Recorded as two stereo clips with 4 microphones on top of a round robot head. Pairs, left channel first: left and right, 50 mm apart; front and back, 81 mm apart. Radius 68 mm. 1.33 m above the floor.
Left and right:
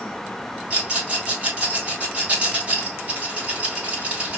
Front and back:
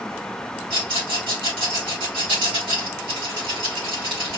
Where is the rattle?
155° right, 3 m.